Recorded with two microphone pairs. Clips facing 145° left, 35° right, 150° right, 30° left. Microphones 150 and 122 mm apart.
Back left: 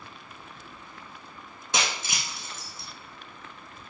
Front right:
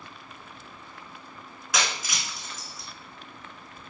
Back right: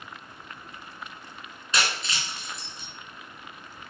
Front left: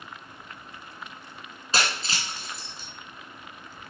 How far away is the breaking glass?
About 3 m.